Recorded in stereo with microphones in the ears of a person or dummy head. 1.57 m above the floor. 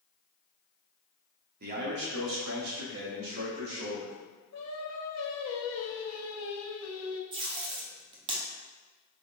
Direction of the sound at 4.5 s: 85° left.